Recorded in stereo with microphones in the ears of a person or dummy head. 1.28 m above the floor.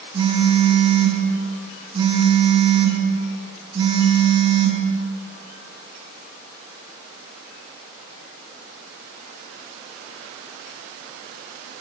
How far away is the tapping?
I don't hear tapping.